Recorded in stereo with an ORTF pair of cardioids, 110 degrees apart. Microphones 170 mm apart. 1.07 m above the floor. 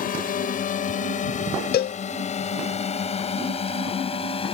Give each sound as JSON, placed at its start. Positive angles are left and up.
{"t": 0.0, "sound": "a drone", "azimuth_deg": 55}
{"t": 1.7, "sound": "a cowbell", "azimuth_deg": 70}